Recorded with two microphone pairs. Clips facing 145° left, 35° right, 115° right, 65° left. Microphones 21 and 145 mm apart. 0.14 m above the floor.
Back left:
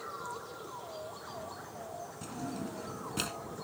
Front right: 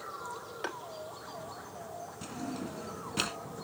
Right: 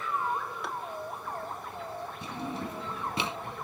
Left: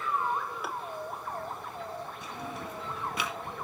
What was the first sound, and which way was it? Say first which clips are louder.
Tapping: front right 7 dB, even; 20° right.